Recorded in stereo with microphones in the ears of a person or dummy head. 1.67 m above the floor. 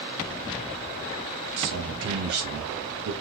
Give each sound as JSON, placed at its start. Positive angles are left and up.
{"t": 1.6, "sound": "a man speaking", "side_deg": -70, "distance_m": 0.9}